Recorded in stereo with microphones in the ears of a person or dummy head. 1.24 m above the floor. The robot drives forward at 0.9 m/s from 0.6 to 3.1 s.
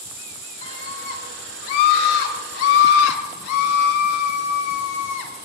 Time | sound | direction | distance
0.6 | a scream | 50° left (ahead or behind) | 4.5 m